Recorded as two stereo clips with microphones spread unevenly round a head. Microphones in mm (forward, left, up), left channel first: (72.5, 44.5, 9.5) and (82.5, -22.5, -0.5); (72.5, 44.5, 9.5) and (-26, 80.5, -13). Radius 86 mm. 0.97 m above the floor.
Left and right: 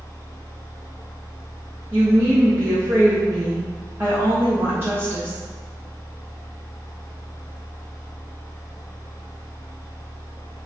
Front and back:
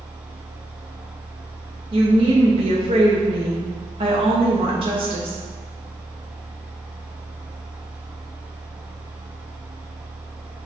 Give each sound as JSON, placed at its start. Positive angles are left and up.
{"t": 0.0, "sound": "a fan", "azimuth_deg": 80, "distance_m": 1.2}
{"t": 1.9, "sound": "a woman speaking", "azimuth_deg": -150, "distance_m": 0.6}